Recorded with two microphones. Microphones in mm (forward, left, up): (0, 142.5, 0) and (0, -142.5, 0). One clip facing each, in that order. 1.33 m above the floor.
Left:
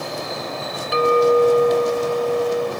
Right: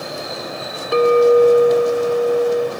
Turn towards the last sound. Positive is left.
turn(degrees=-55)  # may be behind; listen again after turning